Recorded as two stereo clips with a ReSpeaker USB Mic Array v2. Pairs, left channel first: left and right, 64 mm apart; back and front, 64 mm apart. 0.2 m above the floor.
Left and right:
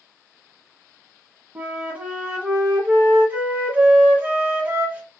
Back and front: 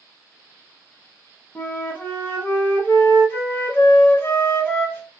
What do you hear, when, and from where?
1.6 s a flute: 145° right, 1.2 m